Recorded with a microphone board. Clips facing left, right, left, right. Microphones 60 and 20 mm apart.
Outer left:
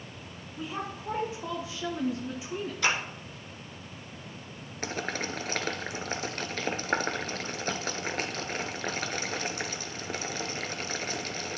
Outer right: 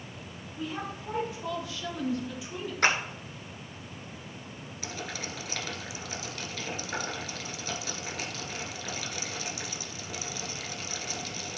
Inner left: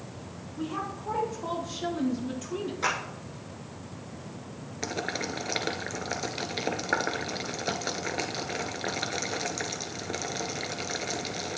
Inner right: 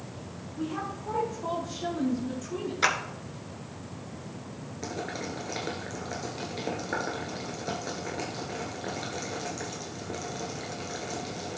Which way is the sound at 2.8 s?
50° right (ahead or behind).